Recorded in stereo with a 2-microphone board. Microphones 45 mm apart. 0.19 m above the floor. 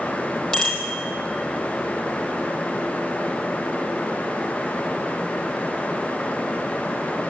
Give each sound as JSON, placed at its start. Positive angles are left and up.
{"t": 0.5, "sound": "a bicycle bell", "side_deg": 10, "distance_m": 4.5}